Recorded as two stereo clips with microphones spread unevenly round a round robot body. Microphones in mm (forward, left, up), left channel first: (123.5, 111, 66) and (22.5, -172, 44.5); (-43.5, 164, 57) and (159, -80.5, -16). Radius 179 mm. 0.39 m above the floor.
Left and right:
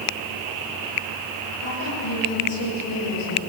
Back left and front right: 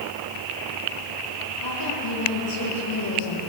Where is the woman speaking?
105° left, 10 m.